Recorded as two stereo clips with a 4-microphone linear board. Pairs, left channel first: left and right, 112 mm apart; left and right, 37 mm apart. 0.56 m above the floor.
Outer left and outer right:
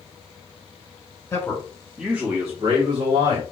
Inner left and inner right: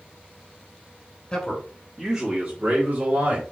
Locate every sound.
1.3 s a man speaking: 25° left (ahead or behind), 1.2 m; by 3.4 s 35° right (ahead or behind), 2.5 m